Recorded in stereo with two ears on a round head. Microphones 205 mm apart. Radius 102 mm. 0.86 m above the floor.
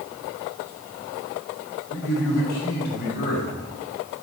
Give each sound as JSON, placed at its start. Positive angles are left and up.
{"t": 1.9, "sound": "a man speaking", "side_deg": 45, "distance_m": 3.5}